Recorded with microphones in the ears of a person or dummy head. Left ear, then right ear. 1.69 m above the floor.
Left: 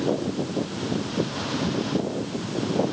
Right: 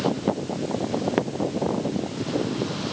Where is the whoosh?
No whoosh in this recording.